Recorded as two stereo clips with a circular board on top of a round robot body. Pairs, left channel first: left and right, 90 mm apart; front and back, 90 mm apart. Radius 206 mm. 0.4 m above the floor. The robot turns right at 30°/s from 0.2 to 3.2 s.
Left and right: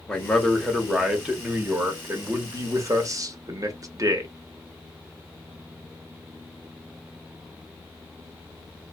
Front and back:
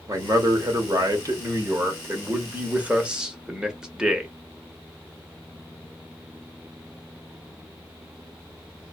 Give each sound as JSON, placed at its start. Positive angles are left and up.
{"t": 0.1, "sound": "a man speaking", "azimuth_deg": 170, "distance_m": 1.1}